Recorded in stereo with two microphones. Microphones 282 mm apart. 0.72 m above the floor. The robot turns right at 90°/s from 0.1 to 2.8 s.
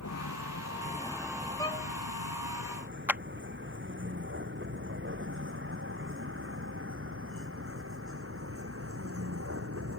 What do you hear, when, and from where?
0.0 s a vehicle: 80° left; by 10.0 s 50° right (ahead or behind)
1.6 s a violin: 10° left (ahead or behind); by 1.9 s 40° left (ahead or behind)
3.1 s a clap: 5° right (ahead or behind)